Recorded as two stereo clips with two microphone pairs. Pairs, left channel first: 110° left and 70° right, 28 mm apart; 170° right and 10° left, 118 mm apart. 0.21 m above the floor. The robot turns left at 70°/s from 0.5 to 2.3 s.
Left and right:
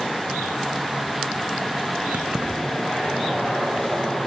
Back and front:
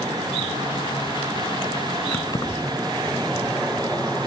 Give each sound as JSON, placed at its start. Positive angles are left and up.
{"t": 2.1, "sound": "keys jangling", "azimuth_deg": -105, "distance_m": 1.4}